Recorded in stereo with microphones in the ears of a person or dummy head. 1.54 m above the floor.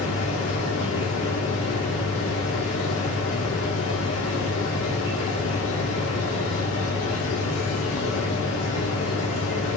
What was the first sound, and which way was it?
A machine running, 75° left (ahead or behind).